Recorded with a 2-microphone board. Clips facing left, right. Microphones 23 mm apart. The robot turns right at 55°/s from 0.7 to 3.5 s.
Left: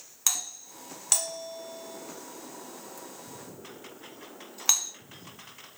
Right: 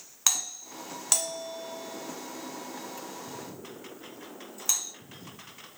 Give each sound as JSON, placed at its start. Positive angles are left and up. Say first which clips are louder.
{"t": 0.3, "sound": "a doorbell", "louder": "right 2 dB", "side_deg": -20, "distance_m": 1.9}